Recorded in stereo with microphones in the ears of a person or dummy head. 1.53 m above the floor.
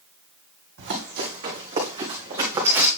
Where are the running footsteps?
55° right (ahead or behind), 3 m; by 2.9 s 20° right (ahead or behind), 4.5 m.